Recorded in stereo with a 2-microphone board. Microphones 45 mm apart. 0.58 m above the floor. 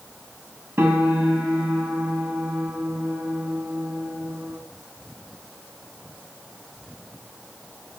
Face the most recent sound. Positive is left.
turn(degrees=-65)  # may be behind; listen again after turning